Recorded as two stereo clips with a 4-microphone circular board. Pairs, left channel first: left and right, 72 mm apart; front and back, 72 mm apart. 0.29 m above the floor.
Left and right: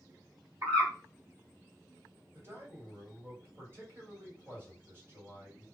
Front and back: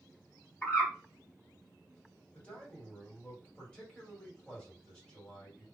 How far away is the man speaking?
About 1.9 m.